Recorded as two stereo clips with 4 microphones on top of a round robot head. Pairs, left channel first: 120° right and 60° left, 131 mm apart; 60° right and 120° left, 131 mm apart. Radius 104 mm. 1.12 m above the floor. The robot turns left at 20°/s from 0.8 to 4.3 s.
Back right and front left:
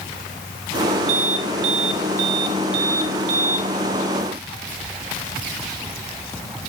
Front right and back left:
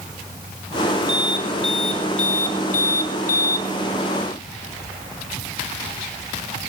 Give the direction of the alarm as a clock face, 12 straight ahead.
12 o'clock.